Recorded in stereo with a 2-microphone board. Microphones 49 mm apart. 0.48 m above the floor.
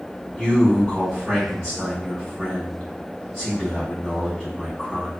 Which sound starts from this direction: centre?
A man speaking, at 0.4 s.